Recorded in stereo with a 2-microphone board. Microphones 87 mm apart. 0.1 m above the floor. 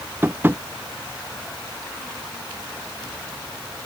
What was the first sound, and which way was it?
Tapping, 25° right (ahead or behind).